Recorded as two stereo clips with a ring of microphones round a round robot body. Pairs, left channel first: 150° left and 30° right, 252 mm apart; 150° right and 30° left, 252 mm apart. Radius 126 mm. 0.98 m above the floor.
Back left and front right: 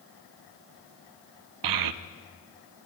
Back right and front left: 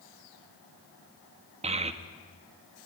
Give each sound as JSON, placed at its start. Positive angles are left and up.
{"t": 1.6, "sound": "a child speaking", "azimuth_deg": -35, "distance_m": 0.7}